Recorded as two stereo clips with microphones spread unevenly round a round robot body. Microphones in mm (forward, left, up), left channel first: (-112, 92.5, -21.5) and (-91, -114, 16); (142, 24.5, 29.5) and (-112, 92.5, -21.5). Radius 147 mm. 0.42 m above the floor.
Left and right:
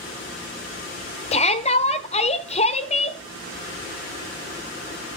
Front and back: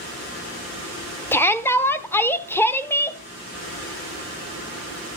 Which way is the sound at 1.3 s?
75° left.